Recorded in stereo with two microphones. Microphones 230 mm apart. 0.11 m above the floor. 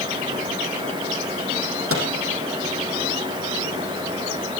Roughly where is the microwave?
Right.